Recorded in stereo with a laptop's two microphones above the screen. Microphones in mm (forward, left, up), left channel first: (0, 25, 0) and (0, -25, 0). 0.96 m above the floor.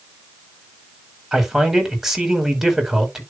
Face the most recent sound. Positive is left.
turn(degrees=-10)  # may be behind; listen again after turning